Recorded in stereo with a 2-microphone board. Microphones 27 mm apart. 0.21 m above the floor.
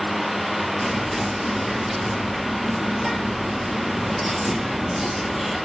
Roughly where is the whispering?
Centre.